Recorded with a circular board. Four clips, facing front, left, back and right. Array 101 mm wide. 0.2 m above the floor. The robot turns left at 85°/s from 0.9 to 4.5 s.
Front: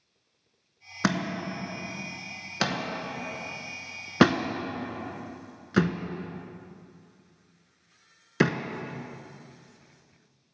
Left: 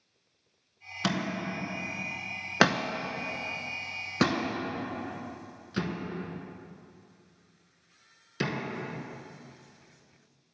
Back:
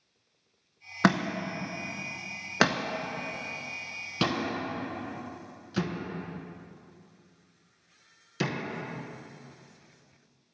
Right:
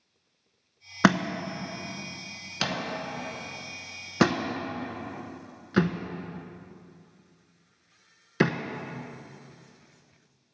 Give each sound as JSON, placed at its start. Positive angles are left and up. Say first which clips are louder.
{"t": 1.0, "sound": "a thud", "louder": "right 8 dB, back 3 dB", "azimuth_deg": -105, "distance_m": 0.6}